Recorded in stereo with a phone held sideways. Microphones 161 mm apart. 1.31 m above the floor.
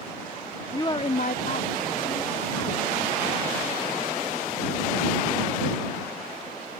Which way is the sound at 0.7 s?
20° left (ahead or behind).